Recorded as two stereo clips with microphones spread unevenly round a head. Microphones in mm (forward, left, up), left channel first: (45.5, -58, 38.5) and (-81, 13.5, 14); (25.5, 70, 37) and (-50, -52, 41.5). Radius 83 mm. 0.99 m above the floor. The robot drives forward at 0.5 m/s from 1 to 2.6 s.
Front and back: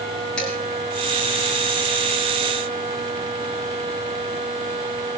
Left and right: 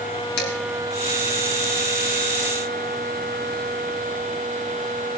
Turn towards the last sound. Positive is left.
turn(degrees=65)